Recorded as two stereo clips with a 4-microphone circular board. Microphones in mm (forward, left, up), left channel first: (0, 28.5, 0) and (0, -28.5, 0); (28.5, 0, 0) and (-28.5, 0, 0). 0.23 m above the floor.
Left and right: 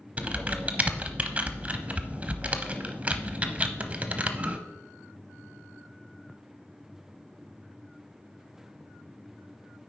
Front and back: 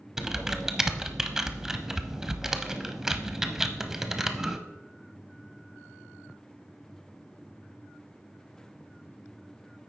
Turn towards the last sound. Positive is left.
turn(degrees=-110)